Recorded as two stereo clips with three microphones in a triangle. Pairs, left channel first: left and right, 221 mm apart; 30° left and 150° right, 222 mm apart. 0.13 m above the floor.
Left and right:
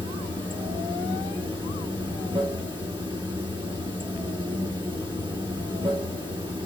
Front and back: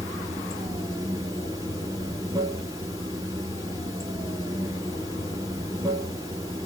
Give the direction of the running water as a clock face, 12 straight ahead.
3 o'clock.